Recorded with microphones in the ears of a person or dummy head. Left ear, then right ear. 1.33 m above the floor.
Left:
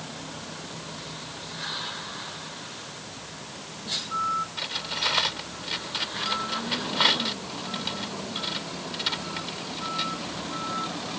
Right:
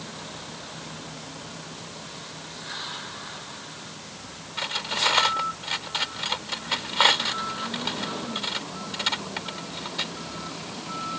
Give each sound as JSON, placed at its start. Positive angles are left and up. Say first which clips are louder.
{"t": 4.6, "sound": "cutlery clinking", "louder": "right 3 dB", "side_deg": -25}